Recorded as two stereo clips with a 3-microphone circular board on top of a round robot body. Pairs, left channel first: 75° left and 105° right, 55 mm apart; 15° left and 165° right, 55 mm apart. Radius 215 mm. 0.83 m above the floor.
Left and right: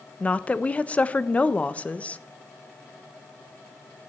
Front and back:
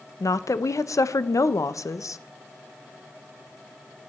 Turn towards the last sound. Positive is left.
turn(degrees=10)